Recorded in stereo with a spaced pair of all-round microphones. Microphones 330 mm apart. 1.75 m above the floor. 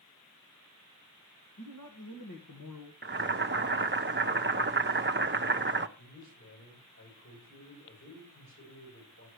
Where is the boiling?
35° right (ahead or behind), 0.6 m.